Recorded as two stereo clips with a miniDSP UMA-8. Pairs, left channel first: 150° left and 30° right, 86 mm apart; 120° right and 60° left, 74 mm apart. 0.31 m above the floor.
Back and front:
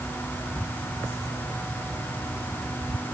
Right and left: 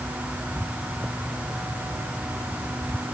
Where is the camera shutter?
No camera shutter in this recording.